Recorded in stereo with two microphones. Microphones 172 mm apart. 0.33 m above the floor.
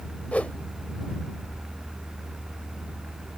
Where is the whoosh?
10° left (ahead or behind).